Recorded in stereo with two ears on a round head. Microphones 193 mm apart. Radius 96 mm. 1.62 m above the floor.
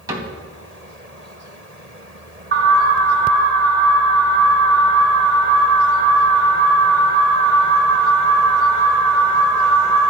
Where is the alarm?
45° right (ahead or behind), 5 m.